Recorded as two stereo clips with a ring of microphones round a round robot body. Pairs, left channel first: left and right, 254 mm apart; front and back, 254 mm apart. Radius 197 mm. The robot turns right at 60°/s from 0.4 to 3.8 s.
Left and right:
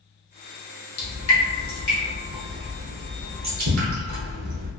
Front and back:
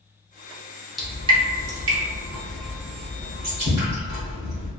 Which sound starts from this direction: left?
Dripping, at 1.0 s.